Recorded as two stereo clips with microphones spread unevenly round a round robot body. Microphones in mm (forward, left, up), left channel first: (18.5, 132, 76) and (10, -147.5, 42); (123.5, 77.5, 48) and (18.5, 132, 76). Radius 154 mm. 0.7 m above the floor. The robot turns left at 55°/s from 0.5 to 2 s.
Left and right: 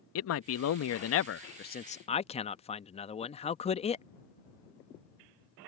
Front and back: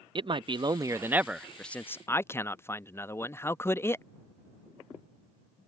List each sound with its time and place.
0.1 s a man speaking: 100° left; by 4.0 s 20° left